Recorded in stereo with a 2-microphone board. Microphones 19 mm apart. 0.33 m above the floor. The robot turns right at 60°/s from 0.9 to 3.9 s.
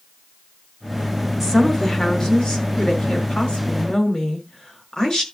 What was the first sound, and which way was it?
A woman speaking, 5° right.